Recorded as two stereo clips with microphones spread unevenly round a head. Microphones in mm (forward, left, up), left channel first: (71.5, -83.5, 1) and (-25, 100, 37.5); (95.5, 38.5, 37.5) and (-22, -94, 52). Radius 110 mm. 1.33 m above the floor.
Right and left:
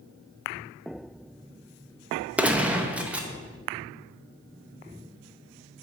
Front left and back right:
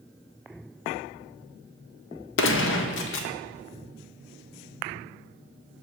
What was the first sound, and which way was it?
A gunshot, 35° left.